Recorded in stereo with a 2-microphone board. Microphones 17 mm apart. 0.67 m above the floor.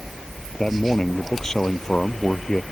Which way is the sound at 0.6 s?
25° left (ahead or behind).